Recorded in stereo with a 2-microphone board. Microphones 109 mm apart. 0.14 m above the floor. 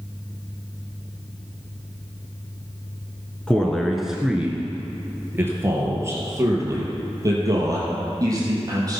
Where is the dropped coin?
No dropped coin in this recording.